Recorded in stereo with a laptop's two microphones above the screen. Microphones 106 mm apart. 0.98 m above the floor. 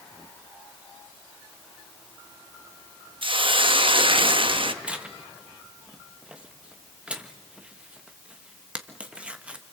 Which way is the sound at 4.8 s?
10° right (ahead or behind).